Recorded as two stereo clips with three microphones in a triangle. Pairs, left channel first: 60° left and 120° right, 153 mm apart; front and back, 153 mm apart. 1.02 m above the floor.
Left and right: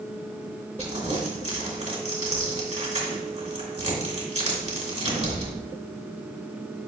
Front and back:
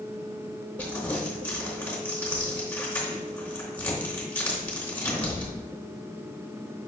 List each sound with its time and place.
0.8 s crumpling: 80° right, 2.5 m